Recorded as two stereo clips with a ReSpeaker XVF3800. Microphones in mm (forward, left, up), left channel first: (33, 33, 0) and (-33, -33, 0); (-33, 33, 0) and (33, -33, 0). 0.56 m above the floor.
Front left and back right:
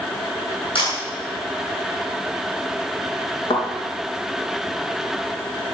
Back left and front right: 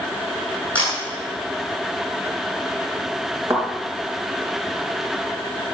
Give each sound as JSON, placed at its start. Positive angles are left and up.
{"t": 0.8, "sound": "a camera shutter", "azimuth_deg": 65, "distance_m": 7.5}
{"t": 3.5, "sound": "a thud", "azimuth_deg": 15, "distance_m": 4.5}